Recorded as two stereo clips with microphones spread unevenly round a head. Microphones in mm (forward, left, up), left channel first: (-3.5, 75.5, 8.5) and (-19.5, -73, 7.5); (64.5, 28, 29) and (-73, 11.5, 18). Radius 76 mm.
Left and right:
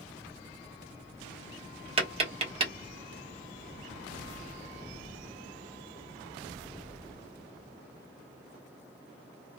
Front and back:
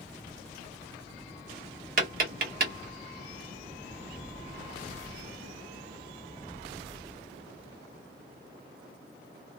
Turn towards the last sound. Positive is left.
turn(degrees=-145)